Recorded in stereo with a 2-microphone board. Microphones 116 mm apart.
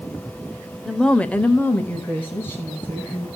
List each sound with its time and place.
0.8 s a woman speaking: centre (ahead or behind), 0.8 m; by 3.3 s 15° left (ahead or behind), 3 m